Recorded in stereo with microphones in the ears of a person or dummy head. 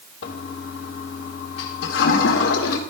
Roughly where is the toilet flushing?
Left.